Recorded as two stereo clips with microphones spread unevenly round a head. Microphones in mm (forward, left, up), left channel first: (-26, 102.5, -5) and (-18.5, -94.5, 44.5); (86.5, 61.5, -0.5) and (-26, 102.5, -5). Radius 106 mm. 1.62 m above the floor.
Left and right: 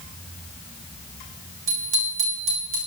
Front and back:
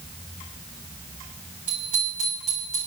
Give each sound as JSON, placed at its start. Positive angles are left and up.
{"t": 1.7, "sound": "a bicycle bell", "azimuth_deg": -115, "distance_m": 7.0}